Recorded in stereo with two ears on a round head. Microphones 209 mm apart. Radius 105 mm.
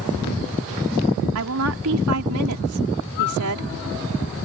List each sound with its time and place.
1.4 s a woman speaking: 70° right (ahead or behind)